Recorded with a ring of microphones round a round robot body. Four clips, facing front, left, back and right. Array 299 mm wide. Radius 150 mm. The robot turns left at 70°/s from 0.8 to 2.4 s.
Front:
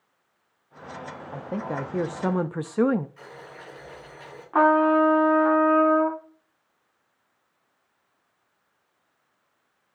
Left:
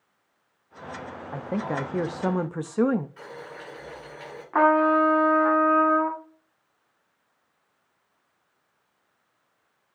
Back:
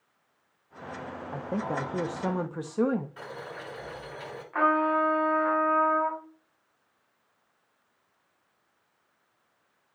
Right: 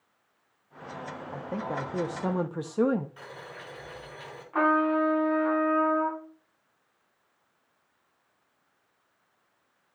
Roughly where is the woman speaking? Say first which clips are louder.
Left 5 dB, front 1 dB; left.